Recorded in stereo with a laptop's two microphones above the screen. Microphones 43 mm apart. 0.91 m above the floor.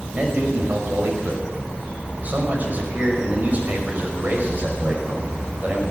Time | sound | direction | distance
0.1 | a man speaking | 35° right (ahead or behind) | 5 m